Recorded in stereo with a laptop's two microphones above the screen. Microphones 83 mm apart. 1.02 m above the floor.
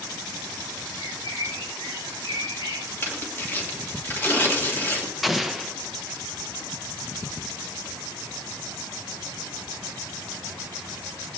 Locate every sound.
1.0 s a bird: 70° left (ahead or behind), 6.5 m
3.0 s tearing paper: 25° left (ahead or behind), 1.7 m
5.2 s an explosion: centre (ahead or behind), 0.7 m